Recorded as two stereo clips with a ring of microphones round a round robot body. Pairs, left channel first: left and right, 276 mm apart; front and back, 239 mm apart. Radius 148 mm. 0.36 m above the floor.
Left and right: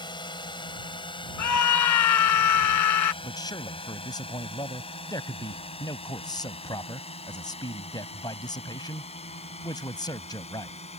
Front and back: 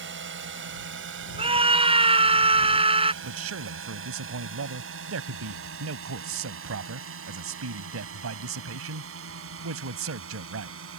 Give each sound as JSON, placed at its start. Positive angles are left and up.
{"t": 0.0, "sound": "a drone", "azimuth_deg": 160}
{"t": 1.4, "sound": "a scream", "azimuth_deg": 115}
{"t": 3.2, "sound": "a man speaking", "azimuth_deg": 165}